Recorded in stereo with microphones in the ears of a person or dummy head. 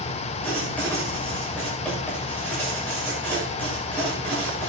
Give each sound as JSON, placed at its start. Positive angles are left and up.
{"t": 0.4, "sound": "writing", "side_deg": 10, "distance_m": 7.0}